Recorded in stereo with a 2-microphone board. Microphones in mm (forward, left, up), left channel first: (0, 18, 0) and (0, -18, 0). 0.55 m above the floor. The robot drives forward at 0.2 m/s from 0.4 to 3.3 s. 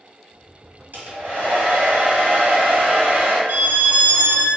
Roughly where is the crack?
No crack in this recording.